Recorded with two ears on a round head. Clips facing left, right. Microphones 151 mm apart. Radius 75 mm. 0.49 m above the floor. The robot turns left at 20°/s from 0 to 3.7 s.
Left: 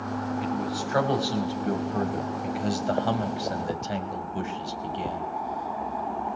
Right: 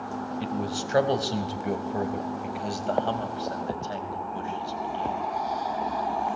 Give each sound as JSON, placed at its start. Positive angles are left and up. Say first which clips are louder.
{"t": 0.4, "sound": "a man speaking", "louder": "left 1 dB", "side_deg": -40, "distance_m": 3.5}